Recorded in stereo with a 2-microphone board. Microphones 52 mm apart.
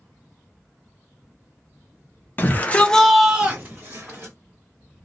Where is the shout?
35° left (ahead or behind), 0.8 m; by 4.3 s 45° right (ahead or behind), 1.0 m.